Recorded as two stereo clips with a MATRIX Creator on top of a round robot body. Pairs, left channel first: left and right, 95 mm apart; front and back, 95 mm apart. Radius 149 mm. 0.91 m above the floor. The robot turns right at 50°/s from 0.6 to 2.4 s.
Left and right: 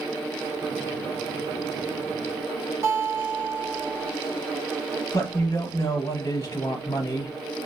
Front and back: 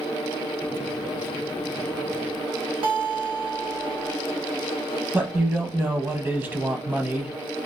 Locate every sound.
2.8 s a guitar: 155° right, 1.0 m
5.1 s a man speaking: 120° left, 0.8 m